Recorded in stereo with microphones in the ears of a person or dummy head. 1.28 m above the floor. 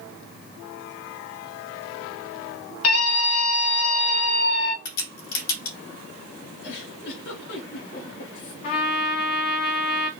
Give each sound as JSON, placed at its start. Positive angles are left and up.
{"t": 2.8, "sound": "a scream", "side_deg": 75, "distance_m": 1.4}
{"t": 4.8, "sound": "a crack", "side_deg": 80, "distance_m": 3.0}
{"t": 6.6, "sound": "a giggle", "side_deg": 60, "distance_m": 2.5}
{"t": 8.6, "sound": "a trumpet", "side_deg": 55, "distance_m": 1.9}